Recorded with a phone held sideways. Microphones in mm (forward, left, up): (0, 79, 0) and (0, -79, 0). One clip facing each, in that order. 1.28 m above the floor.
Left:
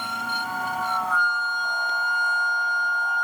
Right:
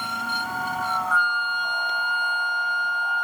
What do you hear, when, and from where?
1.1 s a flute: 40° left (ahead or behind), 0.8 m